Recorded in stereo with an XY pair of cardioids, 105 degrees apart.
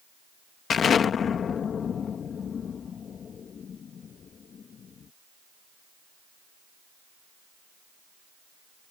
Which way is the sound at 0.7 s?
50° left.